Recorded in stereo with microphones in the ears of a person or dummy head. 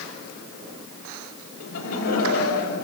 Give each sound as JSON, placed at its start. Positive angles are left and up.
{"t": 1.6, "sound": "laughter", "side_deg": 85, "distance_m": 7.5}